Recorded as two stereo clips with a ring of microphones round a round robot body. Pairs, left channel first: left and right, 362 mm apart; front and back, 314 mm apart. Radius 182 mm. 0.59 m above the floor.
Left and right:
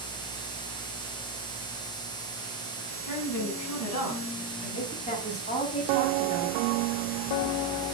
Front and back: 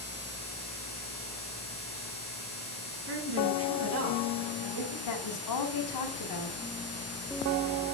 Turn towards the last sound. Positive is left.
turn(degrees=20)